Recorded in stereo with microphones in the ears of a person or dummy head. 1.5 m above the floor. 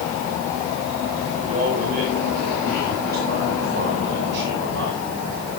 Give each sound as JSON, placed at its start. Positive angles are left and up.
{"t": 1.4, "sound": "a man speaking", "side_deg": -40, "distance_m": 8.0}